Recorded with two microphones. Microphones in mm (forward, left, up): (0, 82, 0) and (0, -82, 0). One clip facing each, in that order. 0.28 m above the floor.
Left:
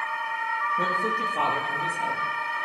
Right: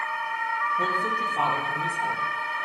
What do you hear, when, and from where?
0.8 s a woman speaking: 75° left (ahead or behind), 5 m